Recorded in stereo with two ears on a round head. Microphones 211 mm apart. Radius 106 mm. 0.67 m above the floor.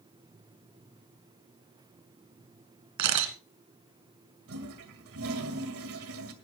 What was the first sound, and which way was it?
A camera shutter, 80° right.